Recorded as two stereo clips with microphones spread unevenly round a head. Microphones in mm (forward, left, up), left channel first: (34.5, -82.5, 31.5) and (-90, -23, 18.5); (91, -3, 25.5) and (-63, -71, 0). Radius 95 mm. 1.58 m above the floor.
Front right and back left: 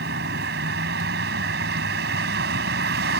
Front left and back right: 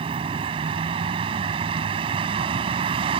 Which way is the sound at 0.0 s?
135° left.